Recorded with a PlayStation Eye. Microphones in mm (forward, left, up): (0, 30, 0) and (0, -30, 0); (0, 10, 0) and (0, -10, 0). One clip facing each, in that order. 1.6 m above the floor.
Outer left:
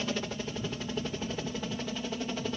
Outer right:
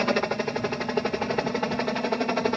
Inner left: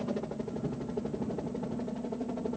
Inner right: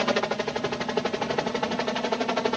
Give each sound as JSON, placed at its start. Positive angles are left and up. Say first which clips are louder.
{"t": 0.0, "sound": "a helicopter", "louder": "outer right 10 dB, inner right 10 dB", "side_deg": -60}